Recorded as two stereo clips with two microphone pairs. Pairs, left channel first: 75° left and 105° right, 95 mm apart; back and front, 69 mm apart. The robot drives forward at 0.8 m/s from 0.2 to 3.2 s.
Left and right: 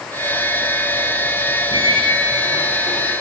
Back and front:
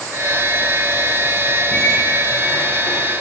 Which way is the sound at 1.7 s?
105° left.